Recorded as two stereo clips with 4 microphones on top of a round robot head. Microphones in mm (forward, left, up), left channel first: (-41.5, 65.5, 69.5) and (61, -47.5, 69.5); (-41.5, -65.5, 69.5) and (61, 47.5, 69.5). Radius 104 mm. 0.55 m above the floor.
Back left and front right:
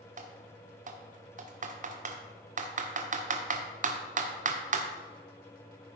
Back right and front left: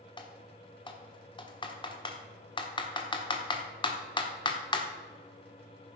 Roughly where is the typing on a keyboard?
Right.